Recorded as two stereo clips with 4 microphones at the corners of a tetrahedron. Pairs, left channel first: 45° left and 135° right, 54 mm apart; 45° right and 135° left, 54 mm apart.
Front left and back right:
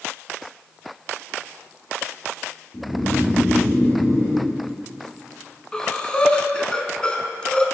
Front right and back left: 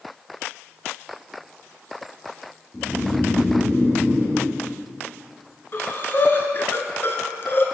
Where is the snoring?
5° left, 2.5 m.